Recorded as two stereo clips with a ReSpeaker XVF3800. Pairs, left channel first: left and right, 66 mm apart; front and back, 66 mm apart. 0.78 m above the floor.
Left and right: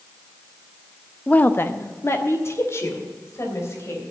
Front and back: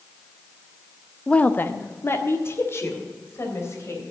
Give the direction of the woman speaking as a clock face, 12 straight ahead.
10 o'clock.